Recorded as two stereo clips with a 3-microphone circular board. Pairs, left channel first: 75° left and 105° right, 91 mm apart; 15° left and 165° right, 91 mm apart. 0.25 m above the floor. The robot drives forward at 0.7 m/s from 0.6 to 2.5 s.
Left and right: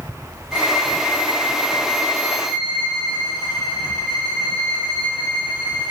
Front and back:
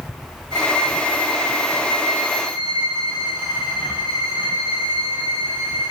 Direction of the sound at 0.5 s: 160° left.